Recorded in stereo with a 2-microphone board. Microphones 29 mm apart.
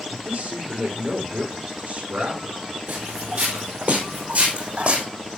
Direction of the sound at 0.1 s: 65° right (ahead or behind).